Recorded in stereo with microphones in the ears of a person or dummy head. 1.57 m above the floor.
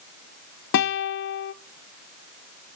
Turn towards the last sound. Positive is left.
turn(degrees=50)  # may be behind; listen again after turning